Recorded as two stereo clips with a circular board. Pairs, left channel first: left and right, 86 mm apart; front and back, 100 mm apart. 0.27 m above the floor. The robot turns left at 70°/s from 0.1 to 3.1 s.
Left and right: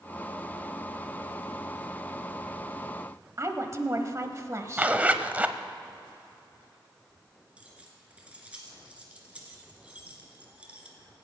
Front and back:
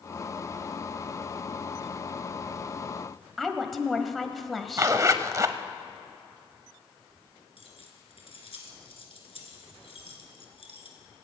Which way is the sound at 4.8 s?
150° right.